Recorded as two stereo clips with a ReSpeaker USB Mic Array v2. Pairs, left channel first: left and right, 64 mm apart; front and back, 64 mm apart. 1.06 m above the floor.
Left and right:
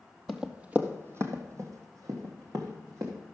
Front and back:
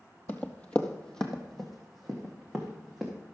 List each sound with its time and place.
0.3 s running footsteps: straight ahead, 1.1 m; by 3.1 s 95° right, 3.5 m